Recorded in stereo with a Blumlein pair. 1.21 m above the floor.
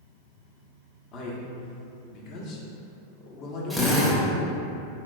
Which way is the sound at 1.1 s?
35° left.